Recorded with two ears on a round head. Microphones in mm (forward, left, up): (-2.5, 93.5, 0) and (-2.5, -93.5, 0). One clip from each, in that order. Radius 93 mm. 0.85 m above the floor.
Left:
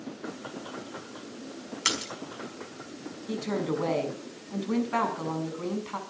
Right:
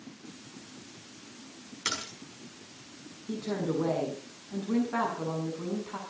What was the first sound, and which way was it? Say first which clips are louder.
A splash: left 4 dB; 40° left (ahead or behind).